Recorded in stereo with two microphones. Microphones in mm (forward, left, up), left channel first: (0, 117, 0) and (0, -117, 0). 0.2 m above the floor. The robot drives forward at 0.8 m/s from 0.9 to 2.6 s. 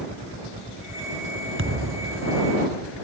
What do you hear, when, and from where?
1.6 s a thud: 60° right (ahead or behind); by 2.4 s 75° right (ahead or behind)